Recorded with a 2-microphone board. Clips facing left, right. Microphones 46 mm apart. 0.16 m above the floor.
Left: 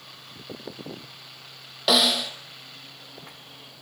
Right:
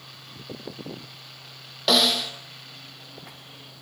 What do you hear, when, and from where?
1.9 s a snare drum: 5° left (ahead or behind), 2.5 m